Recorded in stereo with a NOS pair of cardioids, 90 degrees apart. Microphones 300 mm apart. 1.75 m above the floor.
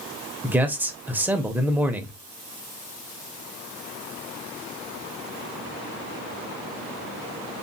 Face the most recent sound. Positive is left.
turn(degrees=-5)